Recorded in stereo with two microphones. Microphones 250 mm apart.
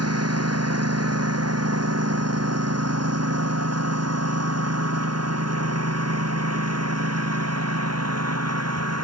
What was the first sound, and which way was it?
A lawn mower, 75° right (ahead or behind).